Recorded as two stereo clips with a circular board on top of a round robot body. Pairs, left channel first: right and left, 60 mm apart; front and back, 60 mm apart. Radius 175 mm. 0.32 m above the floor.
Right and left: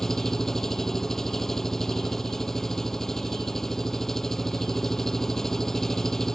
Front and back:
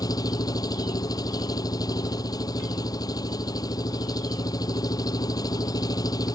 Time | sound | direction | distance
0.0 | an engine running | 5° right | ?